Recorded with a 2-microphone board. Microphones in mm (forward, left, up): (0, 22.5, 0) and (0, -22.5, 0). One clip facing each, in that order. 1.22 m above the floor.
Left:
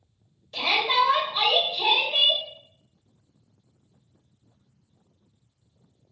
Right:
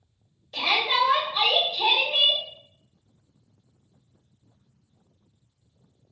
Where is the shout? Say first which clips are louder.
Left 1 dB; centre (ahead or behind), 1.4 m.